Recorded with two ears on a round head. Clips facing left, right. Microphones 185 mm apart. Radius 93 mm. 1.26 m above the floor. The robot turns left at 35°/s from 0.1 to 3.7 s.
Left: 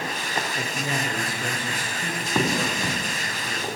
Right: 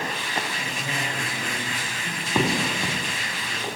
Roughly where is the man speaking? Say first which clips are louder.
Left 3 dB; behind left.